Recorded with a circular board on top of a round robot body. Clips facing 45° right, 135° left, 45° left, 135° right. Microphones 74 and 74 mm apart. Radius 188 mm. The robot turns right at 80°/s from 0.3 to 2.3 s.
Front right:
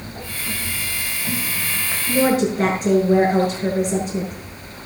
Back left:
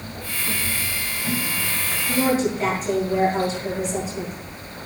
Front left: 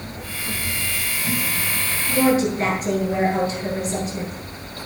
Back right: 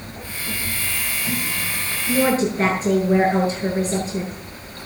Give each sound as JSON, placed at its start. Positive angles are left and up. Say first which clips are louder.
{"t": 2.1, "sound": "a woman speaking", "louder": "front right 3 dB, front left 1 dB", "azimuth_deg": -95, "distance_m": 7.5}